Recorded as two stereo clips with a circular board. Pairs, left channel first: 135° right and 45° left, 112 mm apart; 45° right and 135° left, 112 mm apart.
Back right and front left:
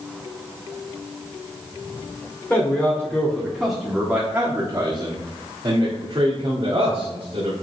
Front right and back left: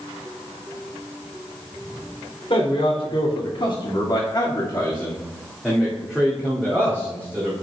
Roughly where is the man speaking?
Ahead right.